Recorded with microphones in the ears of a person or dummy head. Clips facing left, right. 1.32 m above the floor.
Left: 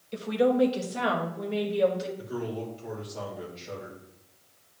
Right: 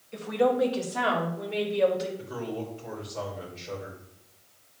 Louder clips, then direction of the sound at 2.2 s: Left 1 dB; 25° left (ahead or behind).